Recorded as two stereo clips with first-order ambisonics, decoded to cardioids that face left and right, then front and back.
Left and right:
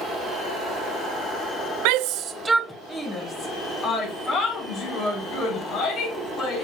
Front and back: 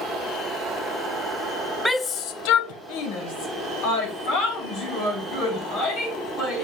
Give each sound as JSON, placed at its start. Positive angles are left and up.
{"t": 1.9, "sound": "a shout", "azimuth_deg": -85, "distance_m": 0.6}